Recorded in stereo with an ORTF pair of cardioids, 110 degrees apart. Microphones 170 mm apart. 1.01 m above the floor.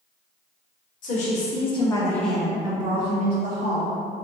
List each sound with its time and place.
1.0 s a woman speaking: 50° left, 1.1 m; by 3.9 s 60° right, 1.2 m